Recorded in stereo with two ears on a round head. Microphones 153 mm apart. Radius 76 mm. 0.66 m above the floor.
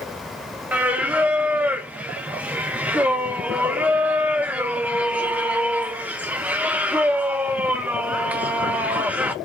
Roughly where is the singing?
Centre.